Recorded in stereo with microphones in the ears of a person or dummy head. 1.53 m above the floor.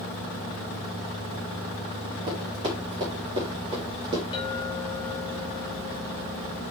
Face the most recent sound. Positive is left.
turn(degrees=25)  # may be behind; listen again after turning